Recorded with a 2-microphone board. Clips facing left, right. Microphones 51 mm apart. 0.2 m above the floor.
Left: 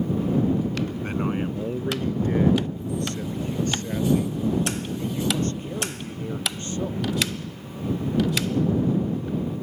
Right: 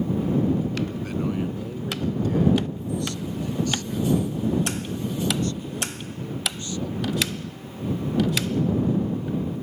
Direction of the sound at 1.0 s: 35° left (ahead or behind).